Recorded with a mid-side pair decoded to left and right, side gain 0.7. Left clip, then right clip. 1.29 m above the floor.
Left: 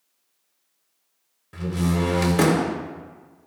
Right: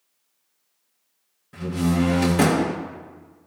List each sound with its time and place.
1.5 s a door slam: 15° left, 3 m